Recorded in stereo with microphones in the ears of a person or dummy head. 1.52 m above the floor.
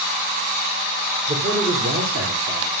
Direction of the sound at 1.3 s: 45° right (ahead or behind).